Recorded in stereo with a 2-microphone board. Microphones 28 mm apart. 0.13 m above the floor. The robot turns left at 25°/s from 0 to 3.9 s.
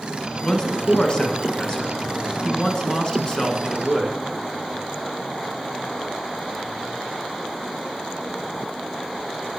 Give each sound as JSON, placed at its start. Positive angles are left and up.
{"t": 0.4, "sound": "a man speaking", "side_deg": 25, "distance_m": 1.4}